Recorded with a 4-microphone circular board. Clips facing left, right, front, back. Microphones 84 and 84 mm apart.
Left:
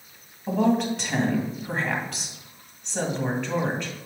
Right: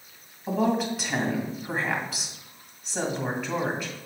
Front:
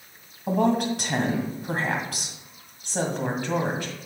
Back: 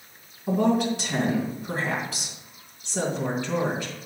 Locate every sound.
0.5 s a woman speaking: 5° right, 2 m